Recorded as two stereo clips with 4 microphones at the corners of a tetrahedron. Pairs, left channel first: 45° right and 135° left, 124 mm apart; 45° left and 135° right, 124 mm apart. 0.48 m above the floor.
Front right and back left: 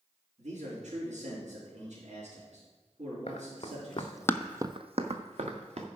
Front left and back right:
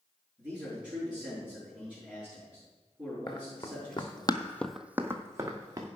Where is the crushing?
I don't hear crushing.